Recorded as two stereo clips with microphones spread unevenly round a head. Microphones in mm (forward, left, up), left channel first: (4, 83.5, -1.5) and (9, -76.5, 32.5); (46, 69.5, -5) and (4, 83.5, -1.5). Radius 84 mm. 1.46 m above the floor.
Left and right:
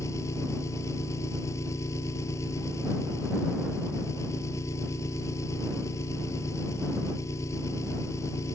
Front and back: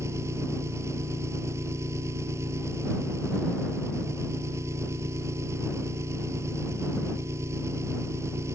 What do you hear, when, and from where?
0.0 s an engine running: 165° left